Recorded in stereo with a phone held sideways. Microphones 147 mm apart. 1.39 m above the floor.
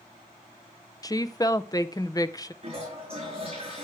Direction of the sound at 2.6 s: 40° right (ahead or behind).